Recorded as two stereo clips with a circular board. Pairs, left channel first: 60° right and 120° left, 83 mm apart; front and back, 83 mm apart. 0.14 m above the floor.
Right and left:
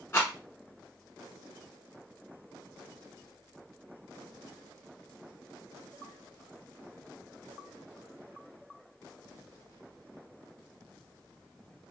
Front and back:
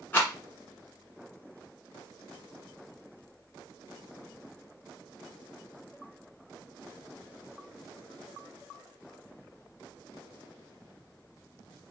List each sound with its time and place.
0.1 s a rattle: 45° right, 1.2 m